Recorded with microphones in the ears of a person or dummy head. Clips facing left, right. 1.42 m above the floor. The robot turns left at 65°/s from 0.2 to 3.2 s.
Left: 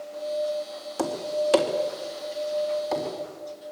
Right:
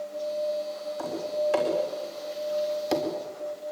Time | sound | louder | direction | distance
1.0 | tapping | left 3 dB | 85° left | 4 m